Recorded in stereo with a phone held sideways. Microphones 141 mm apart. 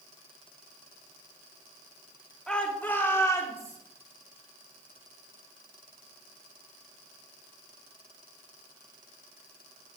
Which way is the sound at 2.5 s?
5° left (ahead or behind).